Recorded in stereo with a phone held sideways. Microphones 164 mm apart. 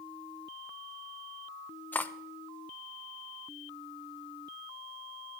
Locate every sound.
1.9 s cutlery clinking: 10° left (ahead or behind), 0.8 m